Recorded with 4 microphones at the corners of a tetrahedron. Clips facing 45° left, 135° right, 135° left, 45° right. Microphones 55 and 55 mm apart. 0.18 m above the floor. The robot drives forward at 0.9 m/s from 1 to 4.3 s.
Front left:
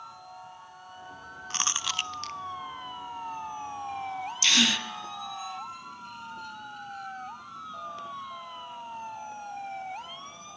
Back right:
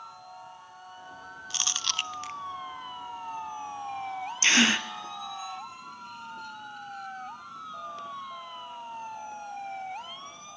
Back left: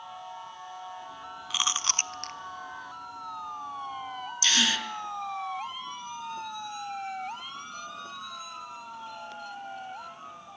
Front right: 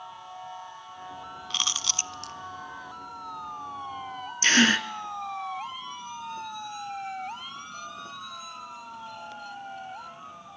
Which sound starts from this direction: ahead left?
Chewing, at 1.5 s.